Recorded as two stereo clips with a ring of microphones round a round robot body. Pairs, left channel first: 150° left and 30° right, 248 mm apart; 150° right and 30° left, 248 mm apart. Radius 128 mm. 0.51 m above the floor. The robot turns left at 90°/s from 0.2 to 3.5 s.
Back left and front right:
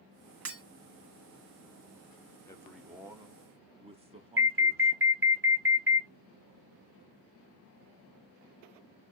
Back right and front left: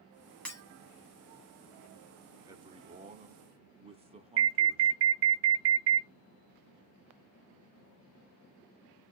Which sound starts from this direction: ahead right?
Breaking glass, at 0.5 s.